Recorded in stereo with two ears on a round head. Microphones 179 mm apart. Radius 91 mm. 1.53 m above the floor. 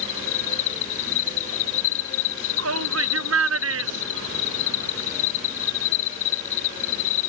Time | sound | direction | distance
0.0 | an insect | 70° left (ahead or behind) | ?
2.6 | a shout | 85° right | ?